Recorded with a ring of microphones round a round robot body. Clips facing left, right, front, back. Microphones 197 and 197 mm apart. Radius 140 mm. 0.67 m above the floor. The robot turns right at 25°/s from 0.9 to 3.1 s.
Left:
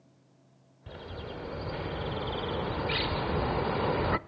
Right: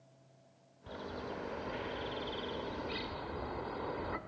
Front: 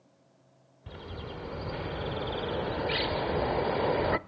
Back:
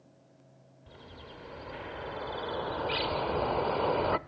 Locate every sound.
0.9 s a bird: 25° left, 0.7 m; by 4.2 s 80° left, 0.7 m